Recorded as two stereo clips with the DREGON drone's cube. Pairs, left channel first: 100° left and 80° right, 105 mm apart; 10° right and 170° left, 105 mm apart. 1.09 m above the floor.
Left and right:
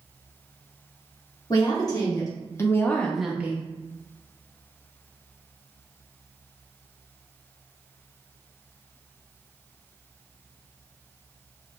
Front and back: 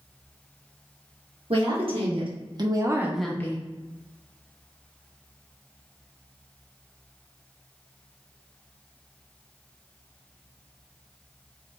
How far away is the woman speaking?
About 1.6 m.